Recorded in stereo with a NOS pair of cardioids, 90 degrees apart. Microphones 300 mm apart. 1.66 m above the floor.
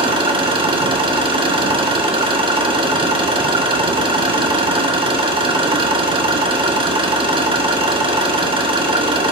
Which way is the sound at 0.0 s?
15° right.